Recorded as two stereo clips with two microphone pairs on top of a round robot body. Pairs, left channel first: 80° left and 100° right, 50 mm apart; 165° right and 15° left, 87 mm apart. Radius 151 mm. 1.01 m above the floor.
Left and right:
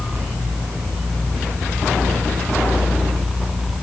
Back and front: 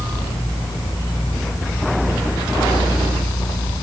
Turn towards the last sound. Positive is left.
No sound to turn to.